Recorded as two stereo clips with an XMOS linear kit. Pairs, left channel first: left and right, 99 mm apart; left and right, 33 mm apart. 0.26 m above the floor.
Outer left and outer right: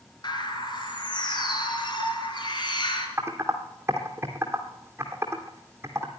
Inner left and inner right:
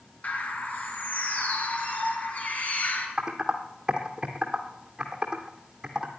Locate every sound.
0.2 s a bird: 50° left (ahead or behind), 3 m
3.2 s typing on a keyboard: 25° right (ahead or behind), 2 m